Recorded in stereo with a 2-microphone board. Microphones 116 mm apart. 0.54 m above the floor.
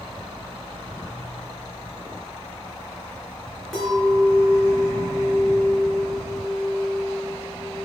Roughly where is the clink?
Centre.